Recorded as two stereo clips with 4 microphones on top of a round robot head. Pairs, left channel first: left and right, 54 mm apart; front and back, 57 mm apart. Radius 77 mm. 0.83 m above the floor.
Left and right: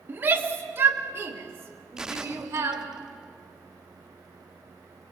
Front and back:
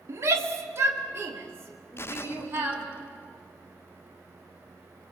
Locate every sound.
0.1 s a shout: 140° right, 1.5 m; by 2.9 s 125° right, 3 m
2.0 s a gunshot: 15° right, 0.6 m